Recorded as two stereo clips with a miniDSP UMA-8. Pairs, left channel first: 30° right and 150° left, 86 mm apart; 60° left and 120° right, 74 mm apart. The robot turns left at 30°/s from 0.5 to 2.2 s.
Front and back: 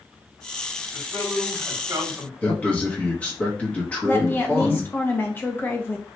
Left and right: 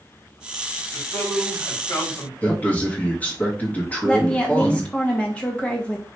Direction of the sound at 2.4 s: 25° left.